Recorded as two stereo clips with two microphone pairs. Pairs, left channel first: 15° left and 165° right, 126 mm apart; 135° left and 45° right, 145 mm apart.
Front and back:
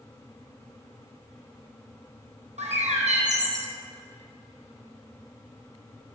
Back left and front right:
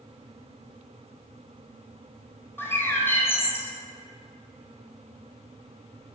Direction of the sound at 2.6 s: 155° right.